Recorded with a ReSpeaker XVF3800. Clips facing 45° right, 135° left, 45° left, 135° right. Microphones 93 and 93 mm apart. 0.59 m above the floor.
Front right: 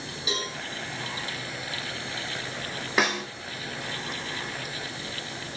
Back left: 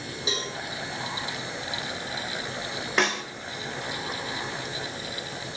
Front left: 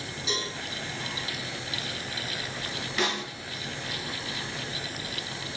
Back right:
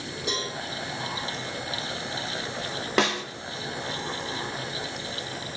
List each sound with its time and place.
0.3 s a cowbell: 165° right, 4.5 m
3.0 s a snare drum: 130° right, 0.9 m